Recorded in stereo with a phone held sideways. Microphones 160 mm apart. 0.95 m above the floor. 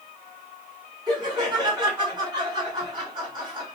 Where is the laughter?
30° right (ahead or behind), 3 m.